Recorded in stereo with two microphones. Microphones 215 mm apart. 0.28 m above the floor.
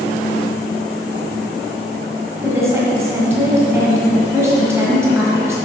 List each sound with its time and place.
2.4 s a woman speaking: 15° right (ahead or behind), 1.8 m